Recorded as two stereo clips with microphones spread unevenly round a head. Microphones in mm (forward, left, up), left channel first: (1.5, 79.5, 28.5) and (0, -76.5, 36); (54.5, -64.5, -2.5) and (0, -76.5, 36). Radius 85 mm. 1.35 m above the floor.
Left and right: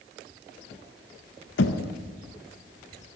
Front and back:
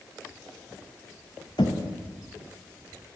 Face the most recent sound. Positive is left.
turn(degrees=85)